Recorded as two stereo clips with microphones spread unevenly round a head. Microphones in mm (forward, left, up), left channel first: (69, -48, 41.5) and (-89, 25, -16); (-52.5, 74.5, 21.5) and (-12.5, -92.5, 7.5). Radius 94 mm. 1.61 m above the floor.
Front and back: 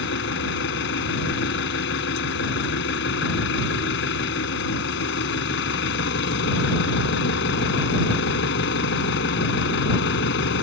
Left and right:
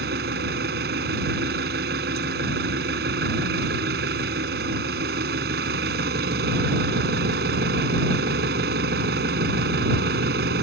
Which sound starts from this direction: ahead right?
An engine running, at 0.0 s.